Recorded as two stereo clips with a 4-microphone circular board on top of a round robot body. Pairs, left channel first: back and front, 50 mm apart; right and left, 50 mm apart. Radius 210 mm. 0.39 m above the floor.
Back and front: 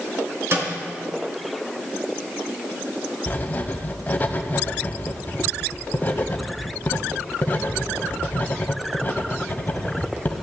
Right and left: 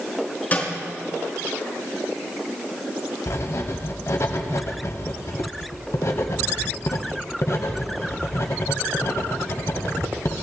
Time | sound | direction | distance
0.5 | a snare drum | 35° right | 3.5 m
3.3 | writing | 125° right | 0.9 m